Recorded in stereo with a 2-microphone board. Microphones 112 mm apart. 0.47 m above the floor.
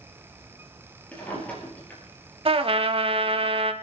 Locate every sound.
1.1 s a drawer: 15° left (ahead or behind), 5 m
2.5 s a trumpet: 60° right (ahead or behind), 1.1 m